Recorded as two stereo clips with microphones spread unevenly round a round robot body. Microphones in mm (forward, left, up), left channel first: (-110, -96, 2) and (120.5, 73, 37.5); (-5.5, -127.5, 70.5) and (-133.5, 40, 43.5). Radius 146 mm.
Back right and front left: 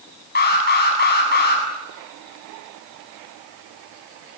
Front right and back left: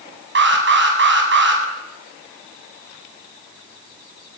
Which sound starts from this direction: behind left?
An alarm, at 0.3 s.